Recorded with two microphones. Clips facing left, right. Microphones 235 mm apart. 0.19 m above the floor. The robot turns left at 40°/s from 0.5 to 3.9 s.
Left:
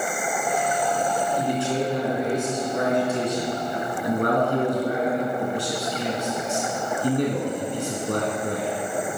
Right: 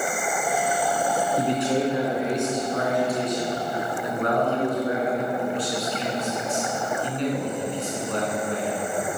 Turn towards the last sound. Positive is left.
turn(degrees=110)